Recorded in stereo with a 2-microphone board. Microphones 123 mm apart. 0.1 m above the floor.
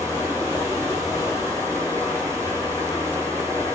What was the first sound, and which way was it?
Running water, 25° left (ahead or behind).